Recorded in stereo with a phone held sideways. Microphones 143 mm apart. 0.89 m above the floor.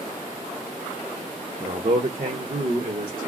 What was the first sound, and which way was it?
A man speaking, 50° right (ahead or behind).